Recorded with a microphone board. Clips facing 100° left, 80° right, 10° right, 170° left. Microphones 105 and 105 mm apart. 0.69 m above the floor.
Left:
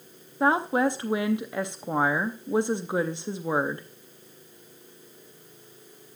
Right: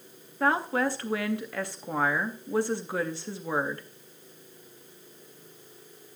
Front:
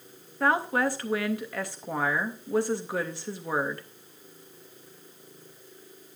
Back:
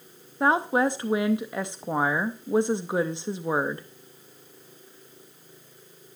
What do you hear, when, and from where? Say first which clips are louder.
0.4 s a woman speaking: left 3 dB, back 3 dB; 135° left, 0.5 m